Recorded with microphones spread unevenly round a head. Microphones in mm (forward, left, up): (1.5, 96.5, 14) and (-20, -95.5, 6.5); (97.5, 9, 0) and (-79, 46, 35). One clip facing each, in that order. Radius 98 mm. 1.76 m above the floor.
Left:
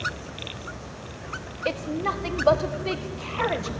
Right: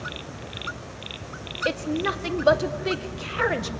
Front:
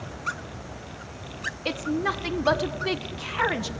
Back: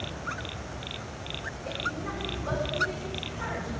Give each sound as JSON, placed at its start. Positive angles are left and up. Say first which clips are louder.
{"t": 1.6, "sound": "a woman speaking", "louder": "right 2 dB, front 10 dB", "azimuth_deg": -20, "distance_m": 1.6}